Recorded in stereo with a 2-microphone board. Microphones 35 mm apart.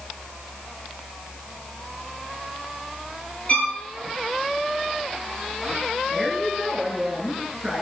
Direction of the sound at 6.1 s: Centre (ahead or behind).